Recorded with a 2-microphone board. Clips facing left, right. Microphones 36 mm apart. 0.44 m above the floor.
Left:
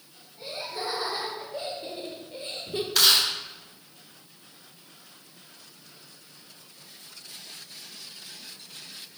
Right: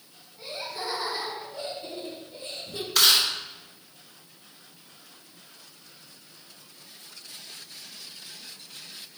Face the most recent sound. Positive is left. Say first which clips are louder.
# even
turn(degrees=0)  # may be behind; listen again after turning